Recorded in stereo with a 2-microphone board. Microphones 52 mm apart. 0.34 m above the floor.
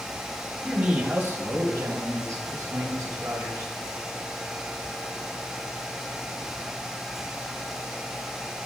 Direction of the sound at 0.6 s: 25° right (ahead or behind).